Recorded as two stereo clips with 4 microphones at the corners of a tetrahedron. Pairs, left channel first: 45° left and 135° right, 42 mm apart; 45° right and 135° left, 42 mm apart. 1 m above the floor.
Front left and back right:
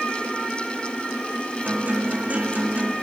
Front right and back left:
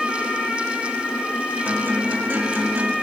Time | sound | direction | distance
1.6 | a guitar | straight behind | 1.5 m